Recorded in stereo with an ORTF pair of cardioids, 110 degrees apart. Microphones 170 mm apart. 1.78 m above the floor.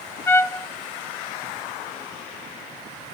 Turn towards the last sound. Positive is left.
turn(degrees=15)